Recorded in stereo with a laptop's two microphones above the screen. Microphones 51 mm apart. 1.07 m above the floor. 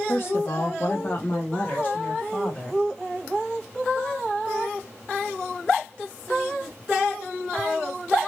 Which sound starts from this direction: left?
A woman speaking, at 0.1 s.